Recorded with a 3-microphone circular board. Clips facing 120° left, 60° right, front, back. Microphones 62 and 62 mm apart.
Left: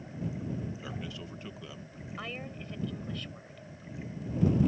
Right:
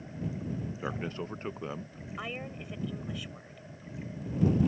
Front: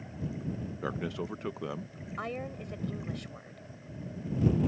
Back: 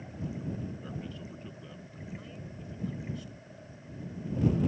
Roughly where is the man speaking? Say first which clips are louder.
Right 5 dB, front 7 dB; ahead.